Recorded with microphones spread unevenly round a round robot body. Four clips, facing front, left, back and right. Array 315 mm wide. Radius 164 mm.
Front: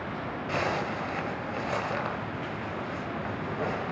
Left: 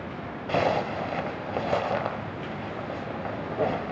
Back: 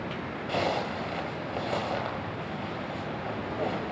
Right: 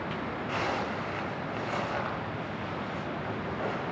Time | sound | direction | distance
0.5 | a zipper | 95° left | 1.9 m